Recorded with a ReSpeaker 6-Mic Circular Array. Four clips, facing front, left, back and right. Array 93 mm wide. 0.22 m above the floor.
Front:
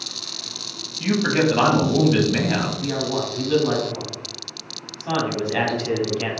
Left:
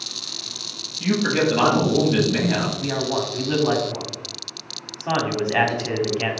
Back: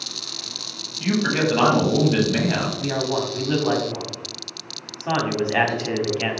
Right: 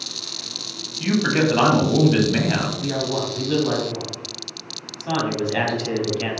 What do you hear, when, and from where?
1.0 s a man speaking: 75° right, 1.0 m
2.8 s a man speaking: 135° left, 1.0 m